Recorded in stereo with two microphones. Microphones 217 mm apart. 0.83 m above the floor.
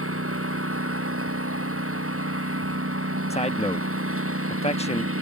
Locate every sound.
0.0 s a lawn mower: 85° right
3.3 s a man speaking: 30° left (ahead or behind)